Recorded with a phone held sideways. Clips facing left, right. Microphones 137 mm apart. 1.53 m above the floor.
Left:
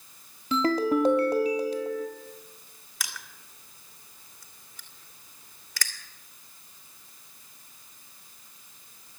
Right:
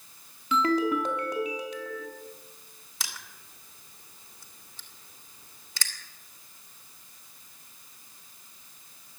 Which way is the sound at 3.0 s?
25° right (ahead or behind).